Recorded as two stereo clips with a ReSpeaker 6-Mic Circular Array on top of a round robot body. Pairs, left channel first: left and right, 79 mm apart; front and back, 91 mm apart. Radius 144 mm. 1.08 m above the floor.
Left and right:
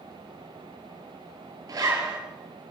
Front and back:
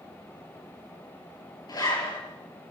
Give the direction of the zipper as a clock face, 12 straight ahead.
2 o'clock.